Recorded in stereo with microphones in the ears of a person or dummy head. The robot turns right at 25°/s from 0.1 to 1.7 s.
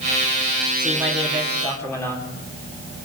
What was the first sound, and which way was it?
A man speaking, 10° right (ahead or behind).